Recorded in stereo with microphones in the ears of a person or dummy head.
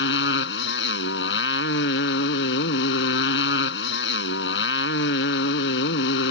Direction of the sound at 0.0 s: 70° left (ahead or behind).